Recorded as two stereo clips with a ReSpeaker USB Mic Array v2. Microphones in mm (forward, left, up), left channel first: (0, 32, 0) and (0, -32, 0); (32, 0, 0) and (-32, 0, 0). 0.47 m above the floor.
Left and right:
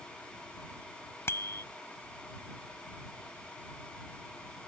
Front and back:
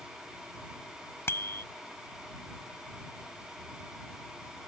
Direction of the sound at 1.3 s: 45° left.